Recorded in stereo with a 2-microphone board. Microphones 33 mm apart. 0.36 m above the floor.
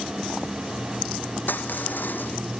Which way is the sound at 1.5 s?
75° left (ahead or behind).